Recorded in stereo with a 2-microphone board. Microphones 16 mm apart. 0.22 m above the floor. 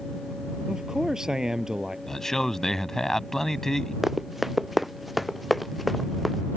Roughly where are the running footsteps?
Centre.